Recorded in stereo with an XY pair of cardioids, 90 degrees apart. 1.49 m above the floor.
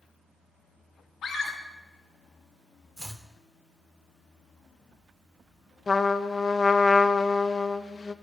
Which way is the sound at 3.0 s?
10° right.